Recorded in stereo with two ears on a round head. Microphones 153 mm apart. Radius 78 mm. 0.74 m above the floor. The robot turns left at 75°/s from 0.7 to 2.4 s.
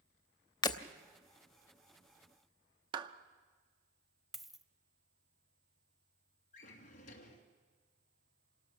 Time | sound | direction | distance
0.6 | breaking glass | 25° left (ahead or behind) | 0.8 m
2.9 | a clap | 25° right (ahead or behind) | 0.7 m
4.3 | a dropped coin | centre (ahead or behind) | 0.8 m
6.5 | a drawer | 50° left (ahead or behind) | 2.5 m